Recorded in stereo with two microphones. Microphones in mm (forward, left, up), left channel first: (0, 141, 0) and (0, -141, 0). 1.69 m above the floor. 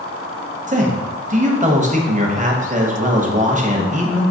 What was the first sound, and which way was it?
A man speaking, 30° right (ahead or behind).